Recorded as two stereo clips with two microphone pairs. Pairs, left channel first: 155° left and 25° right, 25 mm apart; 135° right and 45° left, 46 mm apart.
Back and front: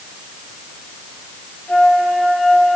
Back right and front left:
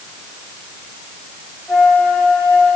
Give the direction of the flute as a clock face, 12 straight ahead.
8 o'clock.